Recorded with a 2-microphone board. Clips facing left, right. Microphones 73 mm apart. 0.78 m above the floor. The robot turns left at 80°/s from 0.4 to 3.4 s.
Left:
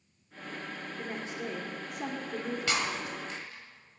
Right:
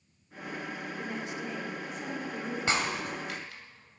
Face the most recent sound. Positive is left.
turn(degrees=-85)